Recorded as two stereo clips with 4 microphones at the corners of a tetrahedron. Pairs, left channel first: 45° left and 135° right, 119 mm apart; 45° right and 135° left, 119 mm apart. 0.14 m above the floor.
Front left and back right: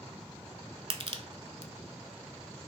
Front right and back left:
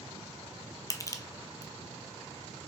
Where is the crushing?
100° right, 0.5 m.